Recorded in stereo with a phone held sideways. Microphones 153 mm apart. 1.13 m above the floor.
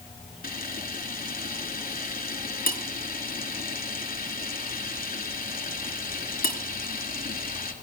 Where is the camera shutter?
70° left (ahead or behind), 3 m.